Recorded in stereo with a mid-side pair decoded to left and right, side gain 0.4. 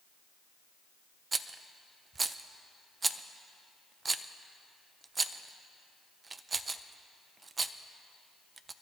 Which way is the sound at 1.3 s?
35° right.